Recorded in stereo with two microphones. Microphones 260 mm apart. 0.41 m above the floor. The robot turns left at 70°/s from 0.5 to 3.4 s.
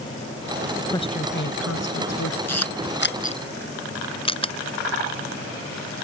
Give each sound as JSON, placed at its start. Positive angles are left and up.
{"t": 0.9, "sound": "a woman speaking", "azimuth_deg": 170}
{"t": 2.5, "sound": "a camera shutter", "side_deg": 80}